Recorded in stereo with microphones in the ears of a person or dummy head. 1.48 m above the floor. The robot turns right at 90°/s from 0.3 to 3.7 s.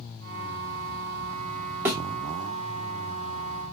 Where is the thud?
5° right (ahead or behind), 1.5 m; by 2.0 s 15° right (ahead or behind), 1.5 m.